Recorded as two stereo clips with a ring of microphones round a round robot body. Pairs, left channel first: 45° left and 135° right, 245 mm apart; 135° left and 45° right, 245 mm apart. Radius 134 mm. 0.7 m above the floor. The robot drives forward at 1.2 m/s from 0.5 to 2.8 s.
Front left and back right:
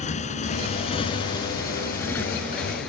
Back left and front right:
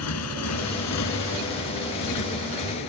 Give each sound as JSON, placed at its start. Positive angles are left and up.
{"t": 0.0, "sound": "a motorcycle", "azimuth_deg": 110}